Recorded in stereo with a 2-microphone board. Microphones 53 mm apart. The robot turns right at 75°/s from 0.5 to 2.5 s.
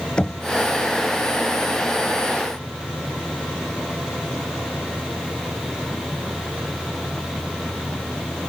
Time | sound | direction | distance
0.2 | knocking | 20° left (ahead or behind) | ?